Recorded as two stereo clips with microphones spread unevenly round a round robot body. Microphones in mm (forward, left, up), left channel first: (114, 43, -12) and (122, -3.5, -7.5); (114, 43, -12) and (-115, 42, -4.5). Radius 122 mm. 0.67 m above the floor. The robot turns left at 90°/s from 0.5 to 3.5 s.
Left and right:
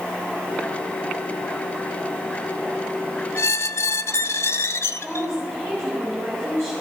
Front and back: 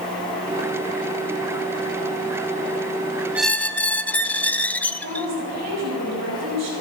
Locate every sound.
3.4 s a squeak: 95° left, 0.5 m; by 5.3 s 85° left, 0.5 m
5.0 s a woman speaking: 170° left, 4.5 m